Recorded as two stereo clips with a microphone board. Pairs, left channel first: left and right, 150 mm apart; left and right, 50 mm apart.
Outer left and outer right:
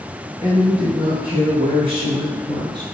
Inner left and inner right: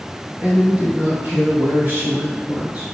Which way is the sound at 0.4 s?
40° right (ahead or behind).